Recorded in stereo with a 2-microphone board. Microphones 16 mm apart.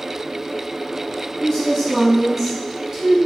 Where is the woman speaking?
35° left (ahead or behind), 0.9 m; by 3.2 s 35° right (ahead or behind), 0.7 m.